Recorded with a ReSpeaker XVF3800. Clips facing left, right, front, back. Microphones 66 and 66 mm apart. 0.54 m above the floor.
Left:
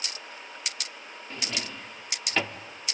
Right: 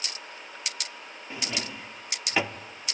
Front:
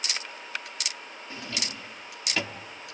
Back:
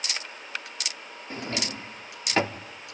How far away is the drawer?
About 0.6 m.